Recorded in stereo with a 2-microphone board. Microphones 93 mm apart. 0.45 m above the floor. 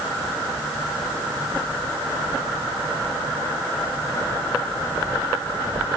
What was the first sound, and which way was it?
Only background noise.